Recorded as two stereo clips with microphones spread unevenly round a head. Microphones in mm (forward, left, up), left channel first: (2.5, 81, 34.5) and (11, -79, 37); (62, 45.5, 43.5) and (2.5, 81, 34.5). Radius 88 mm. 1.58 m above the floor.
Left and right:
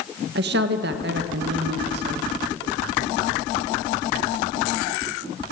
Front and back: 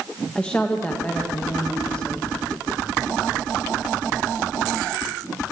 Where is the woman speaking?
115° right, 2.0 m.